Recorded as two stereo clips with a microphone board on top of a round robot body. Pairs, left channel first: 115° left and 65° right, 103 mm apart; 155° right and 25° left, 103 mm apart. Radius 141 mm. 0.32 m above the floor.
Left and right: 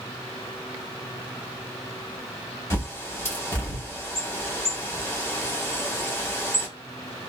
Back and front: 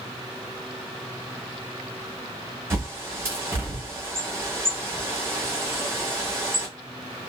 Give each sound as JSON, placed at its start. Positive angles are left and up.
{"t": 2.7, "sound": "a bird", "azimuth_deg": 70, "distance_m": 1.5}